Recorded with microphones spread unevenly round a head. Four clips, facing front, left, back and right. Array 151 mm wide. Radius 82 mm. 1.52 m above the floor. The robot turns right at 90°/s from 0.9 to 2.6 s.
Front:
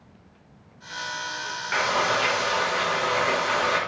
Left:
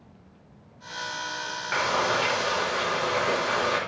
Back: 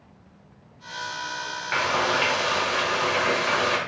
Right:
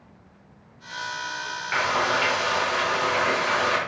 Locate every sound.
1.7 s frying: 140° left, 0.7 m; by 3.8 s 140° right, 0.7 m